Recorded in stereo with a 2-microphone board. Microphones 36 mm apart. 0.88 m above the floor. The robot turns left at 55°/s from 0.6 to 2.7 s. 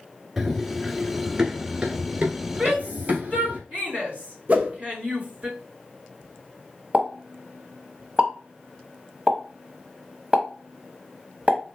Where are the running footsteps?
5° right (ahead or behind), 0.9 m; by 3.6 s 55° right (ahead or behind), 1.8 m.